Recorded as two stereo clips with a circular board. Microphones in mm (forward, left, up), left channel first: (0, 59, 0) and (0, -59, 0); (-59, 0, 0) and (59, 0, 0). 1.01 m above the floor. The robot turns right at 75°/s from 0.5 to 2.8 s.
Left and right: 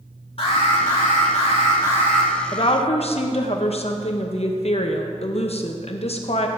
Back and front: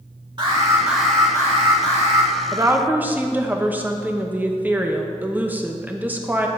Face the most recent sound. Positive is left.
turn(degrees=75)